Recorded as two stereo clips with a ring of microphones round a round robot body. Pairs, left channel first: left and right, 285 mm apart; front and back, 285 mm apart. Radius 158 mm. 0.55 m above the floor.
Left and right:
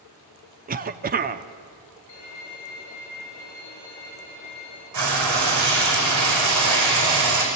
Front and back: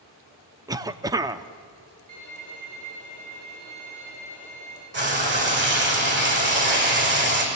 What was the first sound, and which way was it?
A cough, 115° right.